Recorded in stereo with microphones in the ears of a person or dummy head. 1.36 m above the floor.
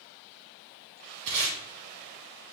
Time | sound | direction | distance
1.3 | tape being pulled | 65° right (ahead or behind) | 1.8 m